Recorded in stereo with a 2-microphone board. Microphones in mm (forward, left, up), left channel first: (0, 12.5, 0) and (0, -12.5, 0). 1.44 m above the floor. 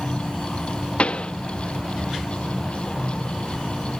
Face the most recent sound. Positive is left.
turn(degrees=50)  # may be behind; listen again after turning